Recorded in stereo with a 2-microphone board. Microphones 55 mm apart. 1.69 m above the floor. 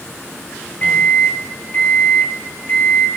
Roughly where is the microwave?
Left.